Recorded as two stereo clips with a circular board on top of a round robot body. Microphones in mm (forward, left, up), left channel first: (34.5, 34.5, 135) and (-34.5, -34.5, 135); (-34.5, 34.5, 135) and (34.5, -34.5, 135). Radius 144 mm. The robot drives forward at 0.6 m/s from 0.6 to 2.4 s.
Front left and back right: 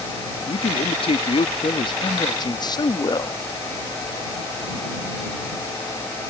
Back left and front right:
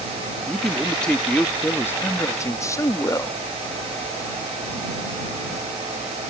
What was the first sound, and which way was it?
A man speaking, 50° left.